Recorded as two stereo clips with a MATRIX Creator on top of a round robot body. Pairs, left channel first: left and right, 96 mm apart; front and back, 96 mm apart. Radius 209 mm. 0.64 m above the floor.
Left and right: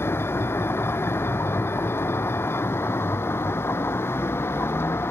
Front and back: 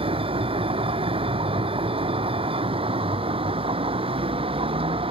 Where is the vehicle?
155° left.